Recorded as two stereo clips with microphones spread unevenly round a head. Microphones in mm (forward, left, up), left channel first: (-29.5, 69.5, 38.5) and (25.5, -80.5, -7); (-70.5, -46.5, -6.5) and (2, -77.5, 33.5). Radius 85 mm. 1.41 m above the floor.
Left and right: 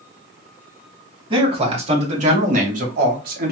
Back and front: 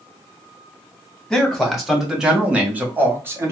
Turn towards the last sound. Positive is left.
turn(degrees=-85)